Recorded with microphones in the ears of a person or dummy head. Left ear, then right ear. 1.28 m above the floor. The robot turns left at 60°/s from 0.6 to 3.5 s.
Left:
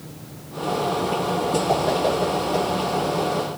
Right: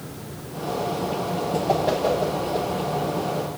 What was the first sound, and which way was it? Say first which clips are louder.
A whoosh: right 1 dB; 15° right (ahead or behind).